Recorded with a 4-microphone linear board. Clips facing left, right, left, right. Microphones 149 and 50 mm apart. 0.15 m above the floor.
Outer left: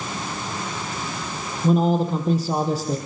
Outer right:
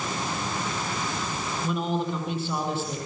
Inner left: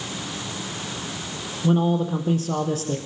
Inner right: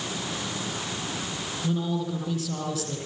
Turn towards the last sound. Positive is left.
turn(degrees=40)  # may be behind; listen again after turning